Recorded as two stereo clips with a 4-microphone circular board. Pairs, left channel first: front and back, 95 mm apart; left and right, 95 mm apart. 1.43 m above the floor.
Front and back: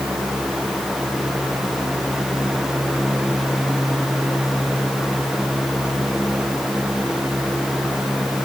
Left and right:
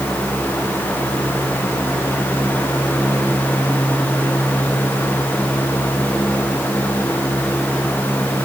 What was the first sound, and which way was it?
Only background noise.